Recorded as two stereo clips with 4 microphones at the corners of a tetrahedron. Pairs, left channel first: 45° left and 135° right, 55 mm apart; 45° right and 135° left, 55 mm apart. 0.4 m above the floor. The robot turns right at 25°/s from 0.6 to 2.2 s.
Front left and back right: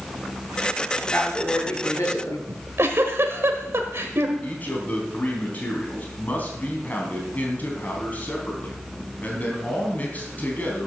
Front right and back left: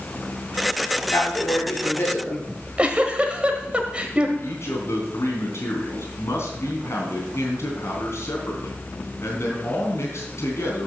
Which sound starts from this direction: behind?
A giggle, at 2.5 s.